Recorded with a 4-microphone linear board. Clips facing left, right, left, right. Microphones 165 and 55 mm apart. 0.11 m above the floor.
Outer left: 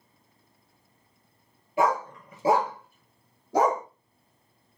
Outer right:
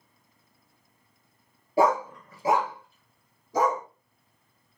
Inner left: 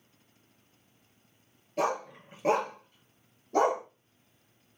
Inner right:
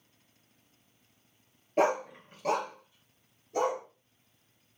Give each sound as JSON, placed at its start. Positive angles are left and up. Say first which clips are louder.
{"t": 1.8, "sound": "a dog barking", "louder": "outer right 3 dB, inner right 3 dB", "side_deg": -35, "distance_m": 0.7}